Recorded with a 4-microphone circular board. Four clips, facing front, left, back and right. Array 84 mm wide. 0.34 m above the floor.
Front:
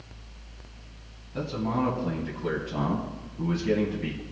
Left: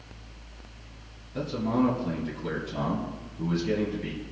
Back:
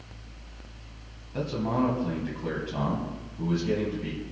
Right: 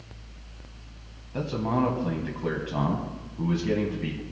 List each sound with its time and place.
1.3 s a man speaking: 110° right, 2 m; by 4.2 s 65° right, 2.5 m